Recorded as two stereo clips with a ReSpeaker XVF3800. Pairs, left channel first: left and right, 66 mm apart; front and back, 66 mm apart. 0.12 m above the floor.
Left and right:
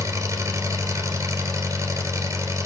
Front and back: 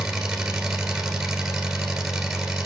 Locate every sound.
0.0 s an engine running: 100° right, 1.8 m